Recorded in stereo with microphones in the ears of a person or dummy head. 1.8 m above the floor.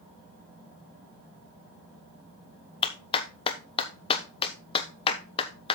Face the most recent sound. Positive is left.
turn(degrees=30)  # may be behind; listen again after turning